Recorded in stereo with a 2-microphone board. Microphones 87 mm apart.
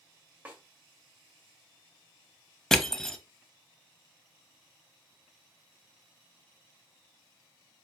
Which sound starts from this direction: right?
A snare drum, at 0.5 s.